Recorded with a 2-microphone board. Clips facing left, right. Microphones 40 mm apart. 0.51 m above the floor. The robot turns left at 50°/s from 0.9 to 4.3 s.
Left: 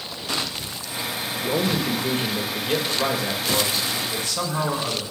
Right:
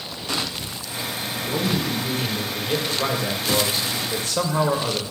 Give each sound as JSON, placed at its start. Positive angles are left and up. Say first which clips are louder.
{"t": 1.4, "sound": "a man speaking", "louder": "left 1 dB", "azimuth_deg": 90, "distance_m": 1.4}